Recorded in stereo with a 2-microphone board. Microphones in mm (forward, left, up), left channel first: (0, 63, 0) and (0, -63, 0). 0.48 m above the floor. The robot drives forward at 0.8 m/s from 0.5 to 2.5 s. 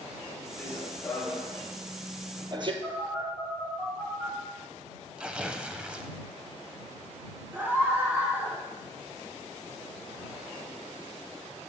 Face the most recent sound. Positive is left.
turn(degrees=-15)  # may be behind; listen again after turning